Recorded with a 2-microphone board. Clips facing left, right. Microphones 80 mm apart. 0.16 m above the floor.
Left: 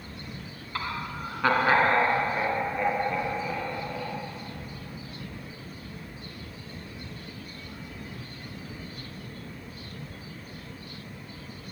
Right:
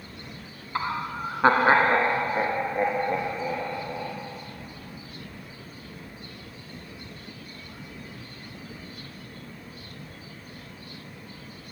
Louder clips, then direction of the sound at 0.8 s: Right 4 dB; 25° right (ahead or behind).